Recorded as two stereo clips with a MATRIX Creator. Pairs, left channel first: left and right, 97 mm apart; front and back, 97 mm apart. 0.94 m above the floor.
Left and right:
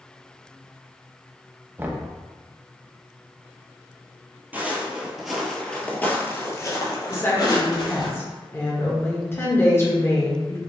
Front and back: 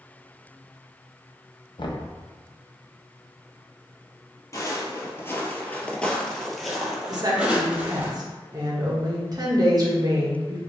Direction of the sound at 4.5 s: 30° right.